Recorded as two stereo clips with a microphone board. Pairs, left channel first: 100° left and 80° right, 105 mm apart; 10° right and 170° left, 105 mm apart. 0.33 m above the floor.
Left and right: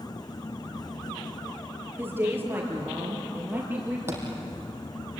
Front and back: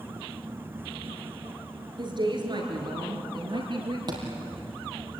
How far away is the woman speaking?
About 5.5 m.